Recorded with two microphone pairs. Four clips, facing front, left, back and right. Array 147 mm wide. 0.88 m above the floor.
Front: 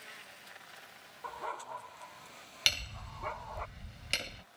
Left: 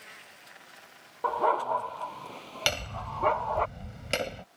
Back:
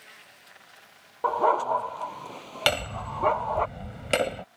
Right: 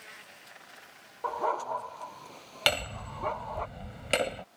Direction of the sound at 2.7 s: 165° right.